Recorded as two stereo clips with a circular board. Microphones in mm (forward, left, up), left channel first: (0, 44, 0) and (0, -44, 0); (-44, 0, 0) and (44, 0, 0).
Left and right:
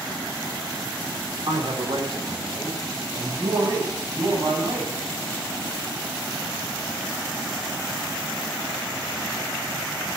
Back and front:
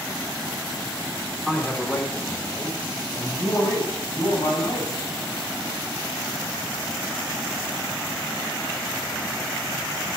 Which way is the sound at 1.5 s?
90° right.